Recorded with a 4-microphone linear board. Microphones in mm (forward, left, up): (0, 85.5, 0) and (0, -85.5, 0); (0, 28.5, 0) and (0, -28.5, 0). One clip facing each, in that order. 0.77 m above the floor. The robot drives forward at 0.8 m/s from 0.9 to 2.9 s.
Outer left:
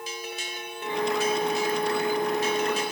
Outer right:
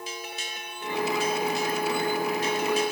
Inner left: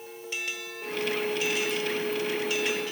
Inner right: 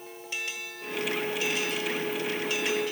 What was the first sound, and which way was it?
Only background noise.